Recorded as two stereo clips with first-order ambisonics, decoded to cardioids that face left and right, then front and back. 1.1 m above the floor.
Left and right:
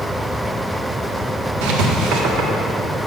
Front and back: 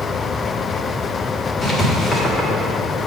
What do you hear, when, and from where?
1.6 s writing: 75° right, 1.1 m